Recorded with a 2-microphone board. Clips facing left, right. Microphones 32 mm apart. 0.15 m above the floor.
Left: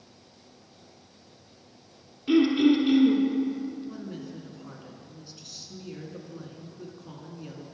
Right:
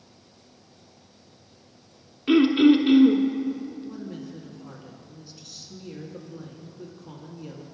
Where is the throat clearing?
35° right (ahead or behind), 0.7 m.